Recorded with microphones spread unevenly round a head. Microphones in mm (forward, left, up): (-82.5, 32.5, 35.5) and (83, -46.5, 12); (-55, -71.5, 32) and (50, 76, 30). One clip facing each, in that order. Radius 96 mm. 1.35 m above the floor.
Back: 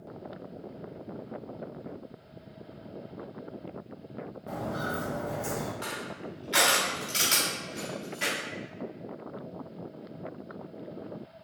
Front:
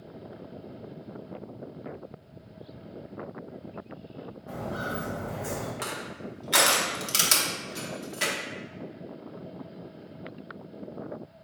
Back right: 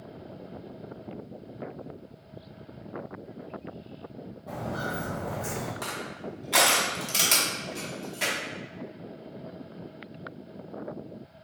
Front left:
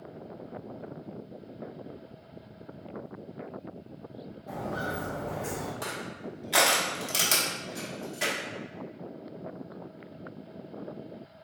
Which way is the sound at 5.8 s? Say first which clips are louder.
Front 1 dB, back right 1 dB; 30° right.